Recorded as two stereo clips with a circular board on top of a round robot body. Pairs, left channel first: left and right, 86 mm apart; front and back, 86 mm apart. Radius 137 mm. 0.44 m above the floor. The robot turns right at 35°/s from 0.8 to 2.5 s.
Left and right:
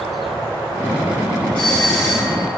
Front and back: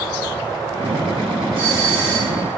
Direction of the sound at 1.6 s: 165° left.